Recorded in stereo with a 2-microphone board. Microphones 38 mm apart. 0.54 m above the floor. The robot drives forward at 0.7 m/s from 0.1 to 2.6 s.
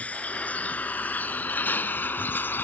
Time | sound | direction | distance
0.0 | a vehicle | 40° left (ahead or behind) | ?